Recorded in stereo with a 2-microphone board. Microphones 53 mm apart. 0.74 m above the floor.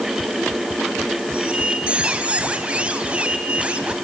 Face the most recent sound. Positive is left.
turn(degrees=-25)  # may be behind; listen again after turning